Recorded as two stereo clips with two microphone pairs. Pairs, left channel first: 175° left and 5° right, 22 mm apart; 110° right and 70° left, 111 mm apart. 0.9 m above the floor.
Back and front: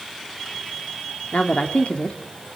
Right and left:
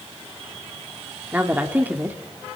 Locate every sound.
1.3 s a woman speaking: 145° left, 2 m